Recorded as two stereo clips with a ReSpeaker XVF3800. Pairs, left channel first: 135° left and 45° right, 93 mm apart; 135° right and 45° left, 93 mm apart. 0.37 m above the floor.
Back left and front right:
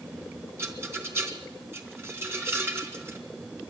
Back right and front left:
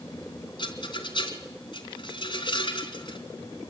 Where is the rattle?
105° right, 3.5 m.